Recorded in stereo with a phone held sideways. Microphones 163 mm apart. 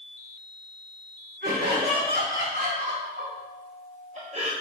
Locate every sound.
1.4 s laughter: 75° right (ahead or behind), 3 m; by 4.5 s 35° right (ahead or behind), 0.8 m